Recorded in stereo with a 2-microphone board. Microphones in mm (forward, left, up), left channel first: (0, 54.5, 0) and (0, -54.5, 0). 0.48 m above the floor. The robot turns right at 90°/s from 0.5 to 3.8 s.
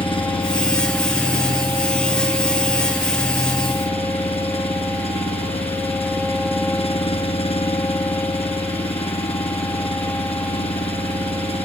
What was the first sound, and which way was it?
An engine running, 125° left.